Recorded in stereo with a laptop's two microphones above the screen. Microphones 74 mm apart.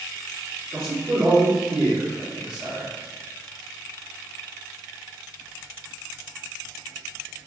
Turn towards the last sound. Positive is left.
turn(degrees=-65)  # may be behind; listen again after turning